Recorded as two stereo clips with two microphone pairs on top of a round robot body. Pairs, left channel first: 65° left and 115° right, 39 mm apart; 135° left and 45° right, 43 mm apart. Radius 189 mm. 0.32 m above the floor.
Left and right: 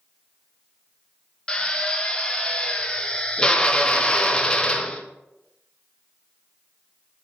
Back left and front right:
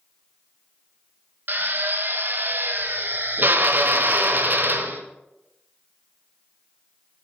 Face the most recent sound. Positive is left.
turn(degrees=-5)